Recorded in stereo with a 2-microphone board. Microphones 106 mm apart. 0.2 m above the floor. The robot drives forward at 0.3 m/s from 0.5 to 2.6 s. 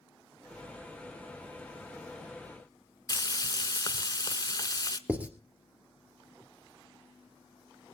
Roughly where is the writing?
Centre.